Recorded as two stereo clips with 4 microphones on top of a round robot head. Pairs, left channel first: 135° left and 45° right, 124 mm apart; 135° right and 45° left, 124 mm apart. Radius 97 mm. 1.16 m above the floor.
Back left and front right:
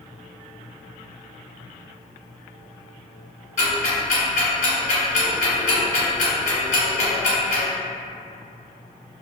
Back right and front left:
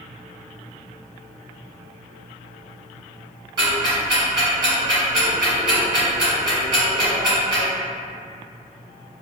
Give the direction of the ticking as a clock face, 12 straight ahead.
9 o'clock.